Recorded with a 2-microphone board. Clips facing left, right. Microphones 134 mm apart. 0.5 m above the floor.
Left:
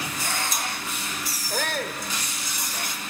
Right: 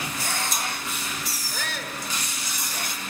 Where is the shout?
50° left (ahead or behind), 2.0 m.